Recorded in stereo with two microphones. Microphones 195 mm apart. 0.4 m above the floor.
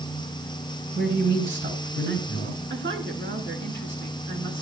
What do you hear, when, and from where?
0.9 s a man speaking: 65° right (ahead or behind), 6 m; by 2.6 s 75° right (ahead or behind), 7 m
2.7 s a woman speaking: 80° right, 4.5 m